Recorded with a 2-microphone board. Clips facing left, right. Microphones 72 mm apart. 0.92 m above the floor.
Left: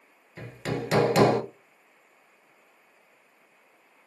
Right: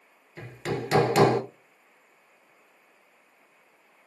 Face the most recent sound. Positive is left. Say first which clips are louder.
# even
turn(degrees=0)  # may be behind; listen again after turning